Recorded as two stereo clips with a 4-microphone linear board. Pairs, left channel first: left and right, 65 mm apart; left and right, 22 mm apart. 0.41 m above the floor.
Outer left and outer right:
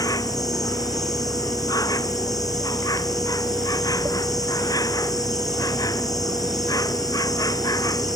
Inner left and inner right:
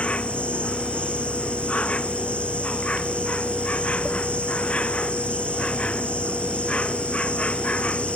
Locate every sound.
0.0 s an insect: 80° left